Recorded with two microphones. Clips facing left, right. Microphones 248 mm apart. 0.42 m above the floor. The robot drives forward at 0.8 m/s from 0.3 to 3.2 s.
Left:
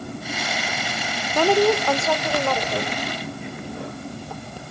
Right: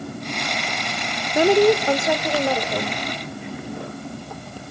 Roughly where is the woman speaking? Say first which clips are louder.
Right 3 dB; right.